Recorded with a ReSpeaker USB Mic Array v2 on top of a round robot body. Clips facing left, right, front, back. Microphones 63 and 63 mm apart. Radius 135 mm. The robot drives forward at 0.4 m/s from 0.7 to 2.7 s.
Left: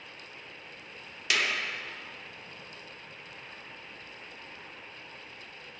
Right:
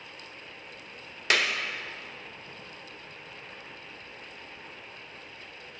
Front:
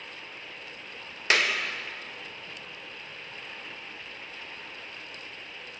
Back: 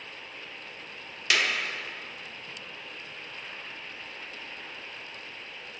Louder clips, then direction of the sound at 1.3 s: Right 3 dB, front 2 dB; 50° right.